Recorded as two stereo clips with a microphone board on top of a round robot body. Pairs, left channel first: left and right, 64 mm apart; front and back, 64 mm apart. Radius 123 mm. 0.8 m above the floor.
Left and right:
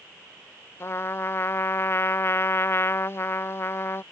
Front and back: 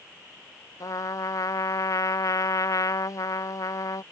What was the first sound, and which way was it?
A trumpet, 40° left.